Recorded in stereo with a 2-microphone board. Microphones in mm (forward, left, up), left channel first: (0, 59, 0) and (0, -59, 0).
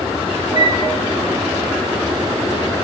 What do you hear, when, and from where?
0.6 s a flute: 60° left (ahead or behind), 0.8 m